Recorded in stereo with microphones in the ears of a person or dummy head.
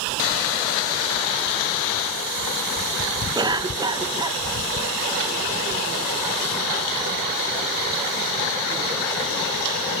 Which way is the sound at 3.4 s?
20° right (ahead or behind).